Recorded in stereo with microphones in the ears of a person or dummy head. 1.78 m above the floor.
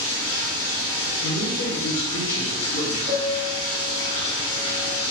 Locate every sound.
0.0 s running water: 30° left (ahead or behind), 1.7 m
1.2 s a man speaking: 70° left (ahead or behind), 1.4 m
3.1 s a piano: 50° right (ahead or behind), 1.5 m